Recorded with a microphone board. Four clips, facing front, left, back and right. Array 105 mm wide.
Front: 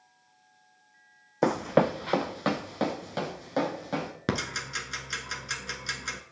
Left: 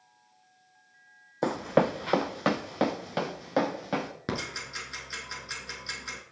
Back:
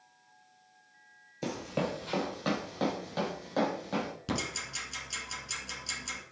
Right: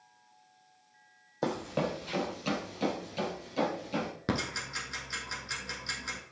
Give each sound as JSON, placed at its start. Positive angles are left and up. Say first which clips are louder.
{"t": 1.4, "sound": "running footsteps", "louder": "left 7 dB, front 10 dB", "azimuth_deg": 15, "distance_m": 0.5}
{"t": 4.3, "sound": "ticking", "louder": "right 3 dB, front 4 dB", "azimuth_deg": 0, "distance_m": 1.4}